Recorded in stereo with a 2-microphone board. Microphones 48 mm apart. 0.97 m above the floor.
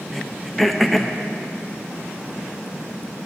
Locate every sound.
0.1 s throat clearing: centre (ahead or behind), 0.5 m